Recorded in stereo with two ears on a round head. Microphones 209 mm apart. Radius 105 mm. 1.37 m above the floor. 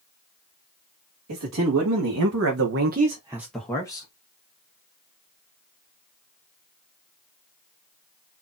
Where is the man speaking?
75° right (ahead or behind), 2 m; by 4.1 s 20° left (ahead or behind), 1.5 m.